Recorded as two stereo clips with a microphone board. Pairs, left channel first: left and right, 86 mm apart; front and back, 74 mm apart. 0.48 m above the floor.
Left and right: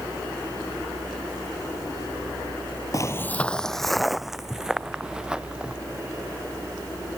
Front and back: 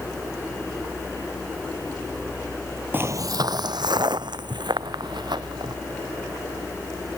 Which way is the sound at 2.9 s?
125° left.